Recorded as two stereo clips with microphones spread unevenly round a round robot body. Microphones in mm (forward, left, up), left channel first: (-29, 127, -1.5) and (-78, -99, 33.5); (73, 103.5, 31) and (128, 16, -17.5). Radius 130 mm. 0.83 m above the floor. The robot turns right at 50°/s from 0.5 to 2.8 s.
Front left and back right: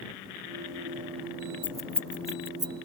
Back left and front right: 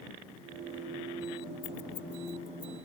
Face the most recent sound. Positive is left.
turn(degrees=-155)